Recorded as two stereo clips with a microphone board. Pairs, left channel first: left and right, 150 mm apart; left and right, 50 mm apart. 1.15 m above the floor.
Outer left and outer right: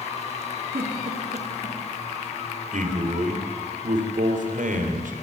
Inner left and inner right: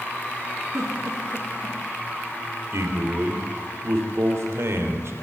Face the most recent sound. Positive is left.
turn(degrees=-60)  # may be behind; listen again after turning